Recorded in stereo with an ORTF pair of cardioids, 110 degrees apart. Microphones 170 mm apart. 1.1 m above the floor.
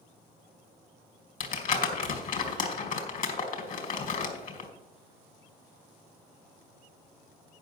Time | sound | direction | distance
1.4 | crumpling | 55° left | 2 m